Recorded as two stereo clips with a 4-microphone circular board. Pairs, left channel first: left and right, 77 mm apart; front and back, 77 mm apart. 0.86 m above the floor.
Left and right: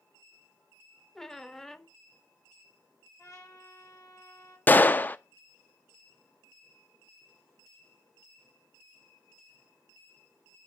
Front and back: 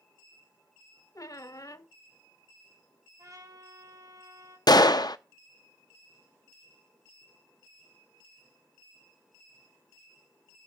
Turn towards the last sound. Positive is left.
turn(degrees=25)